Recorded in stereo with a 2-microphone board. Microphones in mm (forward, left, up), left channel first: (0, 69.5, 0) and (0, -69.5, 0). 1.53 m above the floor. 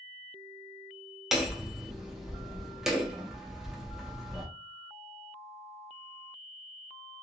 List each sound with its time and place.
1.3 s hammering: 5° right (ahead or behind), 0.7 m